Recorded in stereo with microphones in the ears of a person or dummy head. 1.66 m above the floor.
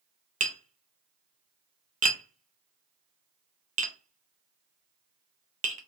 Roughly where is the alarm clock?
I don't hear an alarm clock.